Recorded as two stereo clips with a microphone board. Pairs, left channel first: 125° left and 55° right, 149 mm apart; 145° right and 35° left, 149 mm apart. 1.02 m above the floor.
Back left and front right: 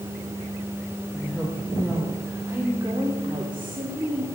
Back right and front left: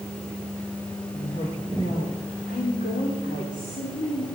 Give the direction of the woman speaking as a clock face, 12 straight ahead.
5 o'clock.